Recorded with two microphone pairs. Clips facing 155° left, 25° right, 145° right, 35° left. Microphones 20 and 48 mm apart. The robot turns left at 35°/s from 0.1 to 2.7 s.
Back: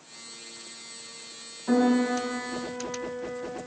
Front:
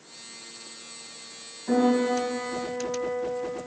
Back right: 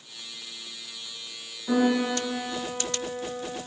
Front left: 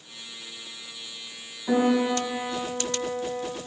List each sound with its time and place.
1.7 s a piano: 80° left, 2 m; by 3.5 s 45° left, 2 m